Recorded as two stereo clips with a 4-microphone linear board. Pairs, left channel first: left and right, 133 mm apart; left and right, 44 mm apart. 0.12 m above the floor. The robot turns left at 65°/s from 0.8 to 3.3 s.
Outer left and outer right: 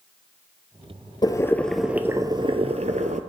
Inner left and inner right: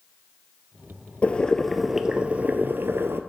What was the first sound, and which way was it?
Boiling, 35° left.